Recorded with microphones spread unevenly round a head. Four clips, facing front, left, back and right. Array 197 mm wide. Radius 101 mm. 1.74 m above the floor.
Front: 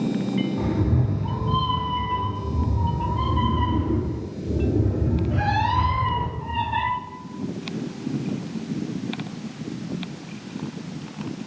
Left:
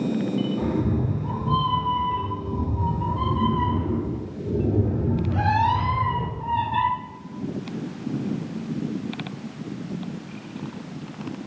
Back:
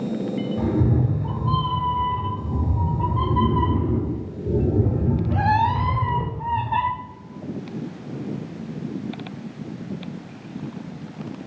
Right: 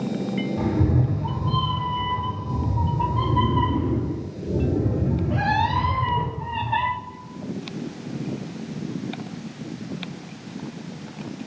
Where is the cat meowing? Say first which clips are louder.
Right 1 dB, back 2 dB; 150° right, 3 m; by 6.9 s 160° left, 4 m.